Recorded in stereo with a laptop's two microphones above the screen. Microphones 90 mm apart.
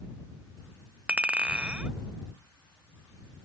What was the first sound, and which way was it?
A clink, 15° right (ahead or behind).